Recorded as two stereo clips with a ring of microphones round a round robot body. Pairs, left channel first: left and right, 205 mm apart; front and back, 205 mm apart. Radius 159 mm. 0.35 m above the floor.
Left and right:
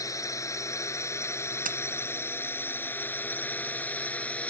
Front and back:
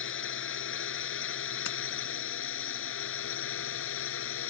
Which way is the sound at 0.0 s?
15° left.